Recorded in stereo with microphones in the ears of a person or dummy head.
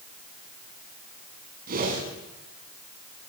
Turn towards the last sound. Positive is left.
turn(degrees=-50)  # may be behind; listen again after turning